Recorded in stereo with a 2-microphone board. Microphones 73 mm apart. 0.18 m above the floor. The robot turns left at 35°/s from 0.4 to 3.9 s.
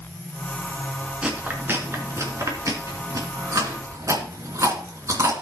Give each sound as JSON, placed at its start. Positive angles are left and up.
{"t": 1.2, "sound": "chewing", "side_deg": -15, "distance_m": 2.5}